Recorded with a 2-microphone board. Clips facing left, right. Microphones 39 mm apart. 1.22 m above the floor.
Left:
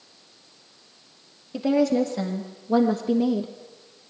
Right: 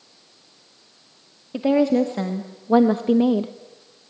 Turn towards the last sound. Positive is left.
turn(degrees=-40)  # may be behind; listen again after turning